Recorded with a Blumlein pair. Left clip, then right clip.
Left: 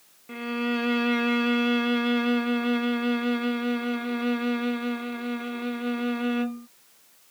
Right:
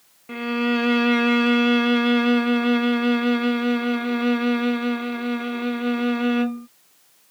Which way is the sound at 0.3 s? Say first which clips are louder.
Right 5 dB; 15° right.